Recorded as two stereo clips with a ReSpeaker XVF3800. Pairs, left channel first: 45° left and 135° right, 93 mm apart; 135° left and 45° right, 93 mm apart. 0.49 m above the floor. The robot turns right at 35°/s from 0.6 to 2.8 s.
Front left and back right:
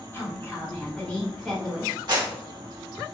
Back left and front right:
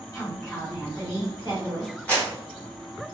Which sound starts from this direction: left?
A woman speaking, at 0.1 s.